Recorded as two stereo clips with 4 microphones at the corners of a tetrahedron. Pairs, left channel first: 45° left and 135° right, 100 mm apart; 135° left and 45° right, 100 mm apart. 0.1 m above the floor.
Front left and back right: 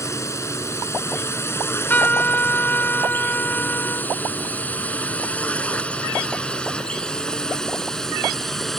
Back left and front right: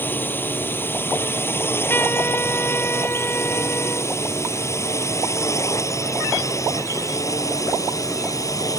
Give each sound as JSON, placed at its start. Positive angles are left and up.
{"t": 0.0, "sound": "a drone", "azimuth_deg": 80}
{"t": 1.6, "sound": "a trumpet", "azimuth_deg": 95}